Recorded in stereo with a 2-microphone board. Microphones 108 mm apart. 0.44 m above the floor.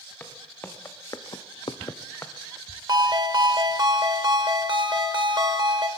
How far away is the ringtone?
About 1.0 m.